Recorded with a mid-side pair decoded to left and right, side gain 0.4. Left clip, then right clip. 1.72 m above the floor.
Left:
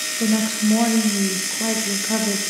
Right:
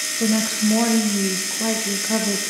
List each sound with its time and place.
0.2 s a woman speaking: 5° left, 2.0 m